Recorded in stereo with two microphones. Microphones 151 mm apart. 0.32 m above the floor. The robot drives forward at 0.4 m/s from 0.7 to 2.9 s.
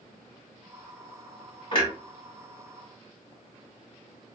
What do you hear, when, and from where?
1.7 s a clunk: 40° left (ahead or behind), 1.3 m